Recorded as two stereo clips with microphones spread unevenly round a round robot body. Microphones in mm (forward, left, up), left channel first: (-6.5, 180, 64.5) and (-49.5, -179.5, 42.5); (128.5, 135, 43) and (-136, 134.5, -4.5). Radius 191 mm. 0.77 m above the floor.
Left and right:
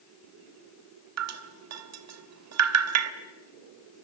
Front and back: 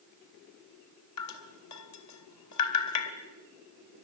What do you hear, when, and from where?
1.2 s dripping: 50° right, 1.3 m